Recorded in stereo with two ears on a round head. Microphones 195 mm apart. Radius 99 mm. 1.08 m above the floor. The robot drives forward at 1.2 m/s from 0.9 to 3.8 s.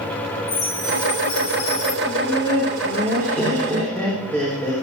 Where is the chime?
35° left (ahead or behind), 2.5 m; by 2.0 s 55° left (ahead or behind), 1.8 m.